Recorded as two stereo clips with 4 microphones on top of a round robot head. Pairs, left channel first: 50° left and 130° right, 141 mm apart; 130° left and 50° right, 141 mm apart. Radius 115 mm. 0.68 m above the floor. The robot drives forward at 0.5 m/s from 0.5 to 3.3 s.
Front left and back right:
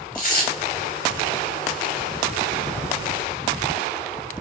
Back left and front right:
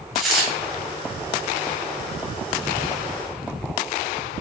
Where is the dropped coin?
40° left, 0.5 m.